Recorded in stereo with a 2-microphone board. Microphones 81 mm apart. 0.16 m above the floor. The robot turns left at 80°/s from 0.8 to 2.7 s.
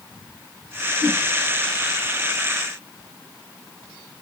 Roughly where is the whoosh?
Left.